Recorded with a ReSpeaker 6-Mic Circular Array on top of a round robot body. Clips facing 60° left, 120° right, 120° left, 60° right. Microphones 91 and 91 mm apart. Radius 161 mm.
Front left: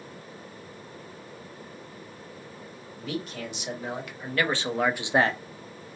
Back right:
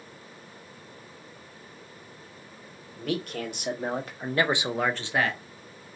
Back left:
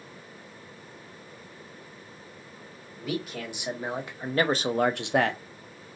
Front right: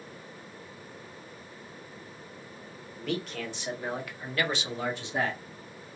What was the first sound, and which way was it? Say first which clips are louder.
A man speaking: back right 3 dB, back left 1 dB; 155° right.